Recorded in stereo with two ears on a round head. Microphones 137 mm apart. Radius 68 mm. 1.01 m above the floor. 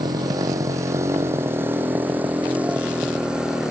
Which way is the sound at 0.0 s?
25° right (ahead or behind).